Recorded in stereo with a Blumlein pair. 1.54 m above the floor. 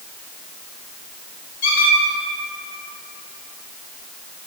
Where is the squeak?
55° left, 1.4 m.